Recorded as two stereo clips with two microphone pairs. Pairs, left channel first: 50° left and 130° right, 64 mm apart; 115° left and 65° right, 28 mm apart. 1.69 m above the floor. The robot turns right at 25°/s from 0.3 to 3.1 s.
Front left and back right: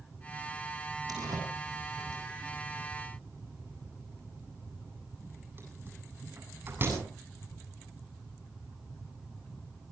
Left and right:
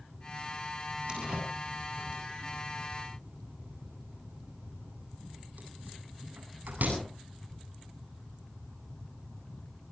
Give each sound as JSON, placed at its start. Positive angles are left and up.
{"t": 1.1, "sound": "a door slam", "azimuth_deg": -125, "distance_m": 8.0}